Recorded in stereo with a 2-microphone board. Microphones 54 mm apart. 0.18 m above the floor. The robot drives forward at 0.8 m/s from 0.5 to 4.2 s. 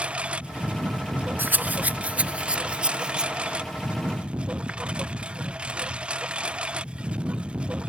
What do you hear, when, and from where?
0.0 s a lawn mower: 20° right (ahead or behind)
1.4 s a rattle: 40° right (ahead or behind); by 3.3 s 15° right (ahead or behind)